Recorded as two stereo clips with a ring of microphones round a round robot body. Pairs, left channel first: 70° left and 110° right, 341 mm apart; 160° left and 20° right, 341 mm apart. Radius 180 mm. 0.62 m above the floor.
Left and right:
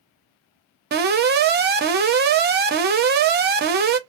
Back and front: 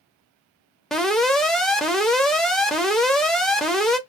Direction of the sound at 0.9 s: 115° right.